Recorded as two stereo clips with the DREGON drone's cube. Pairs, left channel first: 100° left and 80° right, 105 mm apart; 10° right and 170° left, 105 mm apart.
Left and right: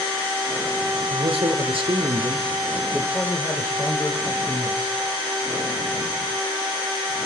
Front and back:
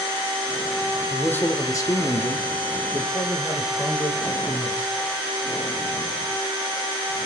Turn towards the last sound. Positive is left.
turn(degrees=55)